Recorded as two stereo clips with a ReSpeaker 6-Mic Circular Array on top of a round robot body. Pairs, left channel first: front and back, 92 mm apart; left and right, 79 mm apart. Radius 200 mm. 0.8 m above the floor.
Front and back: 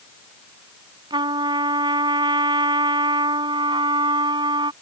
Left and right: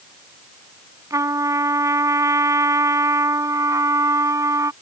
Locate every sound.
1.1 s a trumpet: 140° right